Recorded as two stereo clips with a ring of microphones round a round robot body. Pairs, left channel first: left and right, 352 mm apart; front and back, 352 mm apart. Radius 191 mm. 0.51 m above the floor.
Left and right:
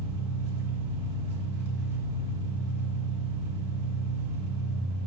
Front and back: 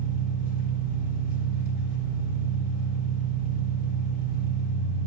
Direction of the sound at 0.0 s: 55° right.